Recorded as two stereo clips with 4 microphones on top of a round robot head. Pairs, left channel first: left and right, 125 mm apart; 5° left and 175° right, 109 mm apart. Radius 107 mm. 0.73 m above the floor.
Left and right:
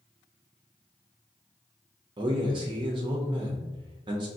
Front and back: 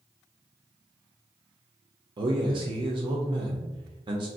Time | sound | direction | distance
2.2 | a man speaking | 135° right | 0.7 m